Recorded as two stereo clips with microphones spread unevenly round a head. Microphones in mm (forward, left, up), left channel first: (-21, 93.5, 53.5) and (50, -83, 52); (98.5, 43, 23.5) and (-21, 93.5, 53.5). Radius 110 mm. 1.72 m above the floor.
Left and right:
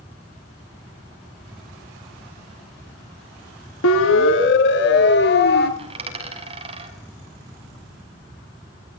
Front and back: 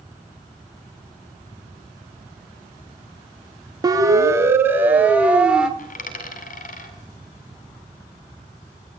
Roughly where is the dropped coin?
Ahead.